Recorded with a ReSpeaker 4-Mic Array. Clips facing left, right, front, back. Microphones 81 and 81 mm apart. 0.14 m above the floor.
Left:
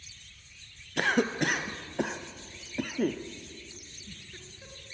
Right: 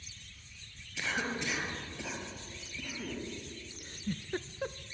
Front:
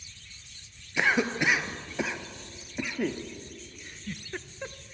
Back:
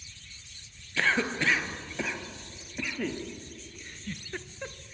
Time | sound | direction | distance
1.0 | a cough | 75° left | 2.5 m
3.8 | a giggle | 85° right | 0.9 m